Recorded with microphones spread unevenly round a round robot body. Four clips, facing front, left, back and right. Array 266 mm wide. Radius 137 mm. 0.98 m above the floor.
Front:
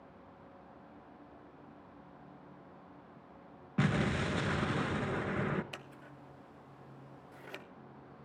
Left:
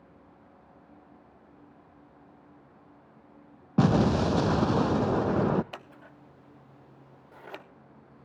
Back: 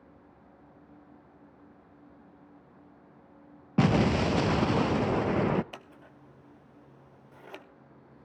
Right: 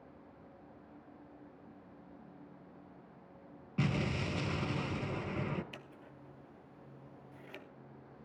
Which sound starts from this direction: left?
Scissors, at 5.7 s.